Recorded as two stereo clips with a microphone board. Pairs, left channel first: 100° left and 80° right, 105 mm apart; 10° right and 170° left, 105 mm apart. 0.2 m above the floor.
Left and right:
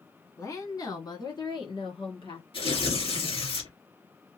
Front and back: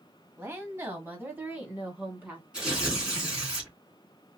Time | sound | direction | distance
0.4 | a woman speaking | 125° left | 1.4 m
2.5 | tearing paper | 90° left | 3 m